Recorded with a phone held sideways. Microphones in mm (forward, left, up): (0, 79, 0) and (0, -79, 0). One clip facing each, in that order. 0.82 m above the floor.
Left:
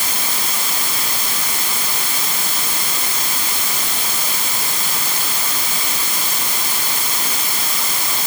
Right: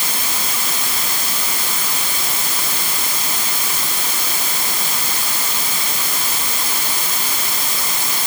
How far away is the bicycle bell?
No bicycle bell in this recording.